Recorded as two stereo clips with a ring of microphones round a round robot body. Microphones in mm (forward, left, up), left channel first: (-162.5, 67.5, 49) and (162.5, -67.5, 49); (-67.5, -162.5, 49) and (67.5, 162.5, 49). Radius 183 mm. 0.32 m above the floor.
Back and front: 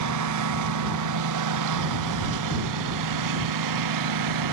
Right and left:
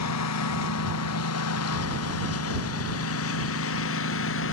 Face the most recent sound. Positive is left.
turn(degrees=-55)